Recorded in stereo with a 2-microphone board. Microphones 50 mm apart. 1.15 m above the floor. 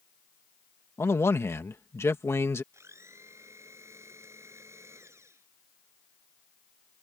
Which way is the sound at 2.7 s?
65° right (ahead or behind).